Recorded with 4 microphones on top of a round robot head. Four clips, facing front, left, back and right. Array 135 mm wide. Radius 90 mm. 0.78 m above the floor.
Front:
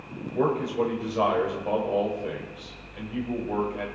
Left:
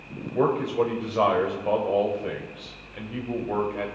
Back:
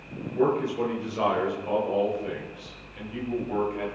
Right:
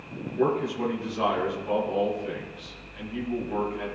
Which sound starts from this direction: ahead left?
A man speaking, at 0.3 s.